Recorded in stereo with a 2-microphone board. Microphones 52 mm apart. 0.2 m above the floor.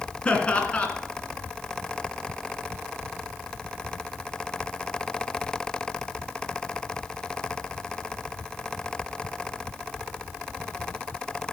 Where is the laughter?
25° left (ahead or behind), 2 m.